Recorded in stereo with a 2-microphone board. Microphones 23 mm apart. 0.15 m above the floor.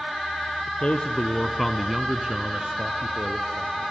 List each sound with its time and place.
0.7 s a man speaking: 50° left (ahead or behind), 1.5 m; by 3.9 s 65° right (ahead or behind), 3 m